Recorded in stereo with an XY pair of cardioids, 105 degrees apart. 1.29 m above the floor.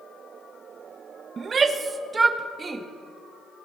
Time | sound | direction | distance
1.4 | a shout | 45° right | 1.5 m